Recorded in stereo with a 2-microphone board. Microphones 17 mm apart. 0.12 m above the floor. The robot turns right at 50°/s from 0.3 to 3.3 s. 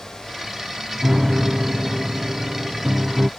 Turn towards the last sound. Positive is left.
turn(degrees=-45)